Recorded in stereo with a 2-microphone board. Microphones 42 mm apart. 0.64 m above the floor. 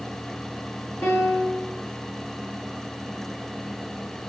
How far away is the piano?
About 6.5 m.